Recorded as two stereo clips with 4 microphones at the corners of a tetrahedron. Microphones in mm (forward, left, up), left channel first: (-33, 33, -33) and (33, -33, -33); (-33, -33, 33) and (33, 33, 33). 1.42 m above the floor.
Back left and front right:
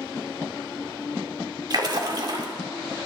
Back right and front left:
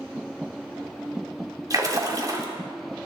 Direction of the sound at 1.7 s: 5° right.